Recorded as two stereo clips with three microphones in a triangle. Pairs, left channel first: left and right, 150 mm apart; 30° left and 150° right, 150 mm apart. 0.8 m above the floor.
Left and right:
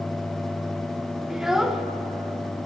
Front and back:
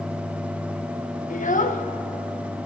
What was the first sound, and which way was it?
A child speaking, 5° right.